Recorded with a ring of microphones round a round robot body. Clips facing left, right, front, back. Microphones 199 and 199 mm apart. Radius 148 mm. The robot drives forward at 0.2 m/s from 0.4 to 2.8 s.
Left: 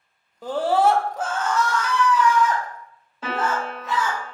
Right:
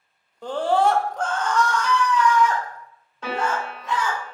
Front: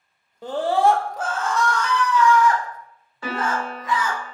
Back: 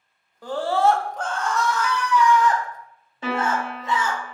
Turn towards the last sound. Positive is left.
turn(degrees=165)